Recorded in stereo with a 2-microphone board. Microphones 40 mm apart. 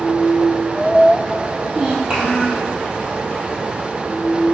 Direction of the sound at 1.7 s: 20° right (ahead or behind).